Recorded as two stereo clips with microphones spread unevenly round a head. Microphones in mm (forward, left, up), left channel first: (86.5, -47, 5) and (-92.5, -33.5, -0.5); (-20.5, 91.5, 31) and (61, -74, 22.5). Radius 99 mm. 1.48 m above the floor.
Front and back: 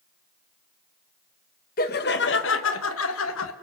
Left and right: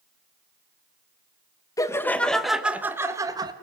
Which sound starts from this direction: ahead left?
Laughter, at 1.8 s.